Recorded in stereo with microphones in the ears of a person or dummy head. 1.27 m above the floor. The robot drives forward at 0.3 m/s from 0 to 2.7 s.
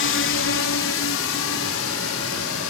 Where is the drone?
50° left (ahead or behind); by 2.7 s 70° left (ahead or behind).